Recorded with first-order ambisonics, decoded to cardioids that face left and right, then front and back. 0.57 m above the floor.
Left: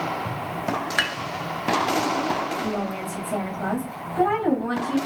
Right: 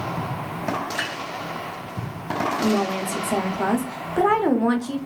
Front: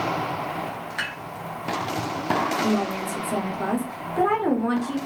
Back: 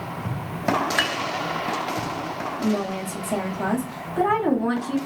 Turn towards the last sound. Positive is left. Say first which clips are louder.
# right 5 dB, front 2 dB
turn(degrees=-95)